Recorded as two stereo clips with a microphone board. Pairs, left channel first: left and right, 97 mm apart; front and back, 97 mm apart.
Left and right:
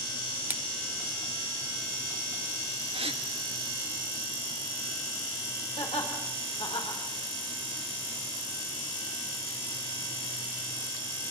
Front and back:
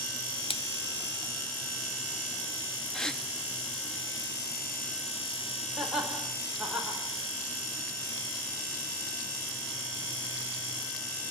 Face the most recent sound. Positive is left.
turn(degrees=95)